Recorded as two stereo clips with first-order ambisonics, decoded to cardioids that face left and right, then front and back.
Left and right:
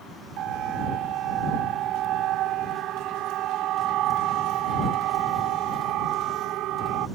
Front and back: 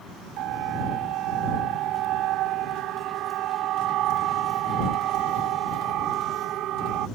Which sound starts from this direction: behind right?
A siren, at 0.4 s.